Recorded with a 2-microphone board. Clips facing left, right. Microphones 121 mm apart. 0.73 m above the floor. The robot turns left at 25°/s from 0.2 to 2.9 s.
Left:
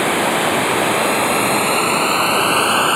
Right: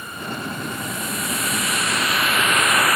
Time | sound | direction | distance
0.0 | running water | 95° left | ?